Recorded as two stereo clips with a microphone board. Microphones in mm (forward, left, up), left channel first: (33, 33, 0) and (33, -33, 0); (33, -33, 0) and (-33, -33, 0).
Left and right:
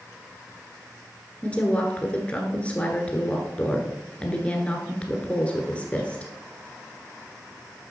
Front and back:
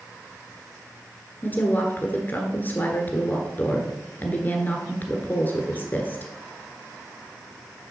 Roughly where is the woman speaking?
Ahead left.